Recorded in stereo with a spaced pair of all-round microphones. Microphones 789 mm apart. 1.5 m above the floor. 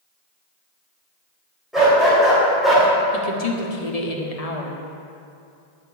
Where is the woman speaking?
50° left (ahead or behind), 1.2 m.